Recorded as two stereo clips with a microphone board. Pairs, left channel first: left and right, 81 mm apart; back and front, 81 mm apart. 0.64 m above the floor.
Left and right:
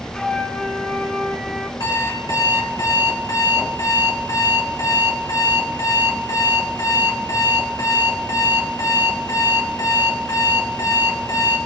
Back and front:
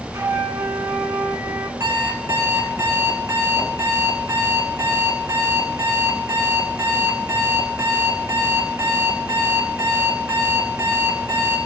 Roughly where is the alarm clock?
Ahead left.